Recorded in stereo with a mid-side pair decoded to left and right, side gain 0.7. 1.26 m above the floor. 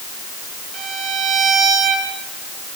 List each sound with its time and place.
0.7 s a violin: 50° right, 6 m